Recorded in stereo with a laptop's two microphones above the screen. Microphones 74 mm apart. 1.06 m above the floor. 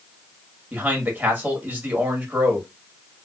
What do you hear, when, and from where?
0.7 s a man speaking: 20° right (ahead or behind), 1.3 m